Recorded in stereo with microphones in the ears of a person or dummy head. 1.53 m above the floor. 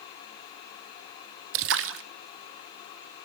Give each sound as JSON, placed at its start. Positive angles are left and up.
{"t": 1.5, "sound": "a splash", "side_deg": -70, "distance_m": 1.0}